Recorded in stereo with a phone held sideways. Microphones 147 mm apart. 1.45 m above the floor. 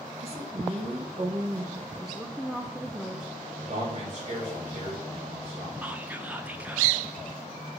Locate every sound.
0.2 s a woman speaking: 45° right (ahead or behind), 1.3 m
1.9 s a woman speaking: 5° right (ahead or behind), 0.5 m
3.6 s a man speaking: 45° right (ahead or behind), 3.5 m
5.8 s whispering: 10° right (ahead or behind), 0.7 m